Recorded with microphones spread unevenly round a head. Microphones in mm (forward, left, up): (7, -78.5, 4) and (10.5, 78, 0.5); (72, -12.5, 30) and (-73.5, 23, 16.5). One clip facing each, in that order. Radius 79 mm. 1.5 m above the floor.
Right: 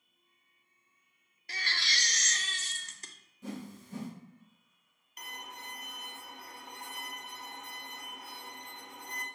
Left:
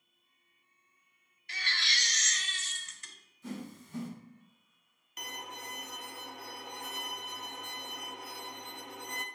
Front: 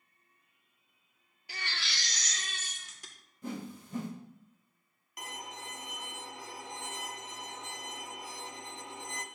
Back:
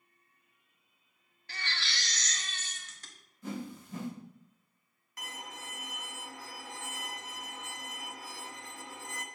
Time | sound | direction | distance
1.5 | a baby crying | 80° right | 0.6 m
3.4 | a whoosh | 60° right | 2.5 m
5.2 | a violin | 60° left | 0.6 m